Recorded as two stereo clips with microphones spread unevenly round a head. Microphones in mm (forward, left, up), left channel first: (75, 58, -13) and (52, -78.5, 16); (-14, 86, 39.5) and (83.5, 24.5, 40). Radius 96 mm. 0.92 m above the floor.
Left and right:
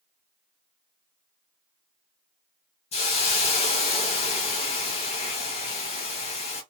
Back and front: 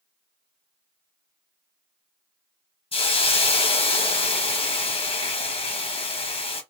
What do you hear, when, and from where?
2.9 s a hiss: 115° left, 1.0 m